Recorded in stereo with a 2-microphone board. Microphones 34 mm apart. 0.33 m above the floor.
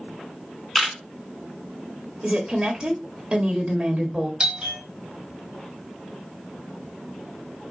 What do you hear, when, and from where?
0.8 s a camera shutter: 5° left (ahead or behind), 2.5 m
2.2 s a woman speaking: 25° right (ahead or behind), 1.4 m
4.4 s a doorbell: 25° right (ahead or behind), 1.6 m